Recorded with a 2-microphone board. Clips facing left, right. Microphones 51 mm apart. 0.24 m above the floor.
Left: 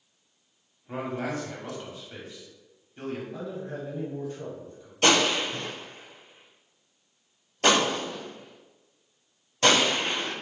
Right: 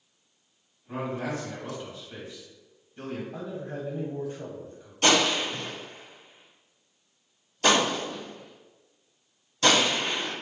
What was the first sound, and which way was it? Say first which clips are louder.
A man speaking: even; 20° left (ahead or behind).